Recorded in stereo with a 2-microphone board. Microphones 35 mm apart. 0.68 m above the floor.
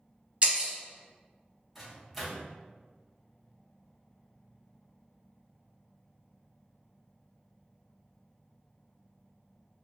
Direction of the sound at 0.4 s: 40° right (ahead or behind).